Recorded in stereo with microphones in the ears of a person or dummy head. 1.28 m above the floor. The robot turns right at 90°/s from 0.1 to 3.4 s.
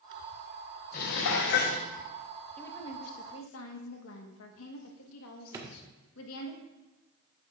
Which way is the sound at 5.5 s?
20° right (ahead or behind).